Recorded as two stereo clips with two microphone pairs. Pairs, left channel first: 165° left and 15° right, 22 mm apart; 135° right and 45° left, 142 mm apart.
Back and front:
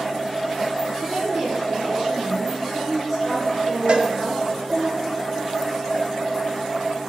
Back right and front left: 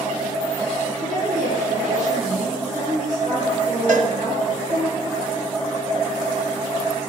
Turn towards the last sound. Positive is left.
turn(degrees=15)